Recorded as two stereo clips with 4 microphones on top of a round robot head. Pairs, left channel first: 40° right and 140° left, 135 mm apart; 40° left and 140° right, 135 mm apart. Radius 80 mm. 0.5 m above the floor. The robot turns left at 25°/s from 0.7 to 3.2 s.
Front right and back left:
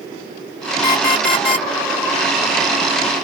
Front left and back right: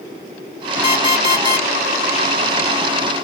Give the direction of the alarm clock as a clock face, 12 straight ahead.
12 o'clock.